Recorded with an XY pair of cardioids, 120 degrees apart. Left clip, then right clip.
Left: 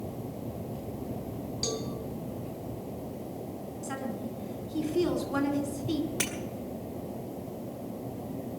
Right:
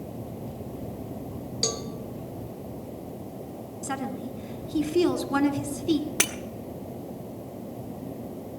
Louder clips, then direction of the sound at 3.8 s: Right 5 dB; 45° right.